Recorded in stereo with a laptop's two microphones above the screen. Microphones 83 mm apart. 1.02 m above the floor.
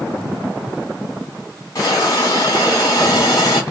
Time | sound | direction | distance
1.8 | a hiss | 40° left (ahead or behind) | 2.5 m